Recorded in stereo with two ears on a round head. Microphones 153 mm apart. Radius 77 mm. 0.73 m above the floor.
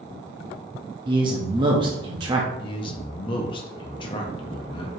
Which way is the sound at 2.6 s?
30° left (ahead or behind).